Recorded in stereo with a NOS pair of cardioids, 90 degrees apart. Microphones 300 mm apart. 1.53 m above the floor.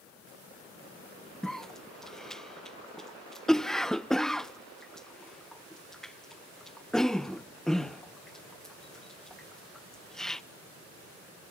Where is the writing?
I don't hear writing.